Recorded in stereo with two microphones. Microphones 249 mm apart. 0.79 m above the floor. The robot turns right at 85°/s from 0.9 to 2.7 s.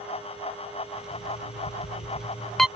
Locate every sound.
1.1 s an alarm clock: 50° left; by 2.7 s 175° right